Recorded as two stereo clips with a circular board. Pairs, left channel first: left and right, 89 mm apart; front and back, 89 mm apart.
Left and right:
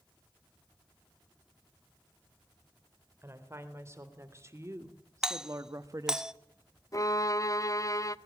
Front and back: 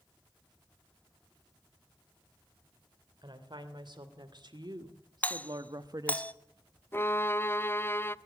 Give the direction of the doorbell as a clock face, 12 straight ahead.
1 o'clock.